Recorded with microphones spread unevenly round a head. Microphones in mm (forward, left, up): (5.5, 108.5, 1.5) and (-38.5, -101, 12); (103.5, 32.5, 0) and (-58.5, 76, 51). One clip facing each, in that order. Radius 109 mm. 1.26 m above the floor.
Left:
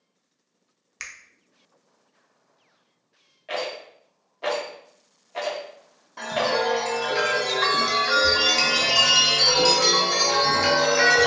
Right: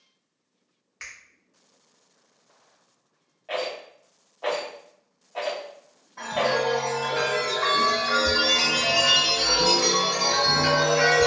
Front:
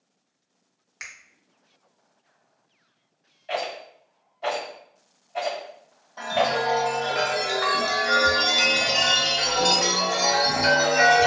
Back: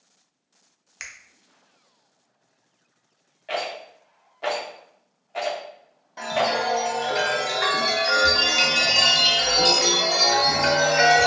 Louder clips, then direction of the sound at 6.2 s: Even, even; 80° left.